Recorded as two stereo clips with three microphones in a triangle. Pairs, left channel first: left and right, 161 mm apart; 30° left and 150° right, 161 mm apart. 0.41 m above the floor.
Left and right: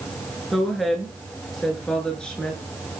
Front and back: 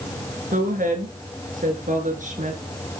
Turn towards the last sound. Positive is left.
turn(degrees=175)